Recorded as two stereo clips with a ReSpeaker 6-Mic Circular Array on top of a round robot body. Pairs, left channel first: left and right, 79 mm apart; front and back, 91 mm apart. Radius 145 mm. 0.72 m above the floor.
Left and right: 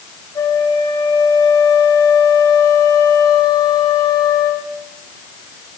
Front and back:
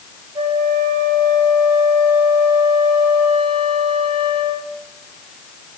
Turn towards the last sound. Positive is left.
turn(degrees=135)